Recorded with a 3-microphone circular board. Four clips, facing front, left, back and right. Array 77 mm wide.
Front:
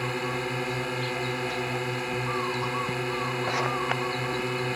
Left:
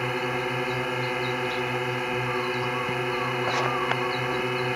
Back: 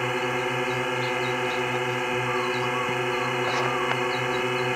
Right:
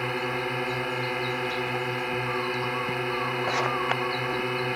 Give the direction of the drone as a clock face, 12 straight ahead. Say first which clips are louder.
Left 1 dB, back 4 dB; 6 o'clock.